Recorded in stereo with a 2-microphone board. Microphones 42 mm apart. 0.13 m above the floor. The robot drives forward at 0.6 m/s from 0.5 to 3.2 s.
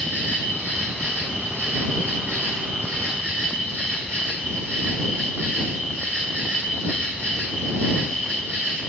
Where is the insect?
70° left (ahead or behind), 3 m; by 8.9 s 50° left (ahead or behind), 3.5 m.